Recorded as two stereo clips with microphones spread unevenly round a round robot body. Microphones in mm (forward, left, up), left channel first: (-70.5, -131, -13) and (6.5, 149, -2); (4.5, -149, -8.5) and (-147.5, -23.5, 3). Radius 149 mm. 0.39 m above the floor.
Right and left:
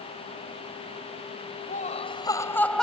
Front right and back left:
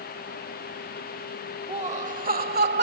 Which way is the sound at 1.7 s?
160° right.